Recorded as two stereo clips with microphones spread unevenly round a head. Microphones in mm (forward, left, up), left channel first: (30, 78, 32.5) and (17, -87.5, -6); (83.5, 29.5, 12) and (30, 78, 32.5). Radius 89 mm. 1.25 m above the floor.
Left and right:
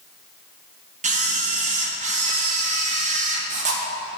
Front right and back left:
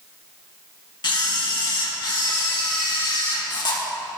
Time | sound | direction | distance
1.0 | a camera shutter | 50° right | 1.2 m